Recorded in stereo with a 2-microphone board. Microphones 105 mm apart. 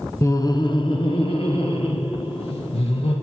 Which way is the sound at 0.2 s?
30° left (ahead or behind).